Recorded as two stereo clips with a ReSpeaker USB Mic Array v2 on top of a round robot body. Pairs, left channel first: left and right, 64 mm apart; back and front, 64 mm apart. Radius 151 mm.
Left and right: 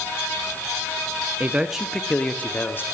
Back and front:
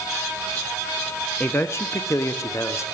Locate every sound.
1.4 s a man speaking: 130° right, 0.8 m; by 2.8 s 145° left, 1.4 m